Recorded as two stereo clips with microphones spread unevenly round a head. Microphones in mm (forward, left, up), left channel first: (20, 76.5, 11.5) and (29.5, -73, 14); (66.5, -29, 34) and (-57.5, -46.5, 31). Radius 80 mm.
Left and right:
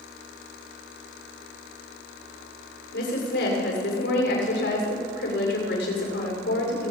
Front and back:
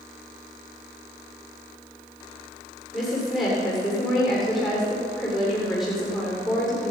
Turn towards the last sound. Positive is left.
turn(degrees=100)